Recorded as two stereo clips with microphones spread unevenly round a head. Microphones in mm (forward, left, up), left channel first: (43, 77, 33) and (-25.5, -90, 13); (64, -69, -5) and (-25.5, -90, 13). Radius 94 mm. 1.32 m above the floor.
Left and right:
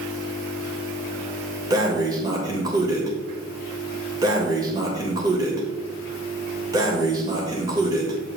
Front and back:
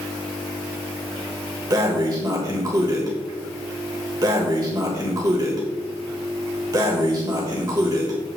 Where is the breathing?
175° left, 1.4 m.